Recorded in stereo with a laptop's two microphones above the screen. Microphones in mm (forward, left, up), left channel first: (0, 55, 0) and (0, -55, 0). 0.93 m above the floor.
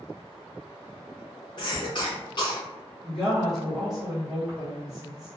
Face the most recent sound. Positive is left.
turn(degrees=0)  # may be behind; listen again after turning